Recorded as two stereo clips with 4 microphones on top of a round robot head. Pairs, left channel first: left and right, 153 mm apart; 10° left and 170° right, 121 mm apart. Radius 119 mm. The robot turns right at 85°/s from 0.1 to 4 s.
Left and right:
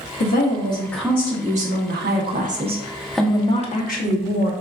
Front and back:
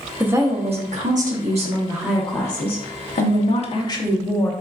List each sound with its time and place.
0.2 s a woman speaking: 110° left, 1.2 m; by 4.5 s 75° left, 1.2 m